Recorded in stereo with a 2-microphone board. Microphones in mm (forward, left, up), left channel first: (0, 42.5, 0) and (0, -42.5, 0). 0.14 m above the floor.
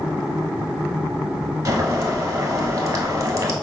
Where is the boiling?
45° right (ahead or behind), 1.0 m.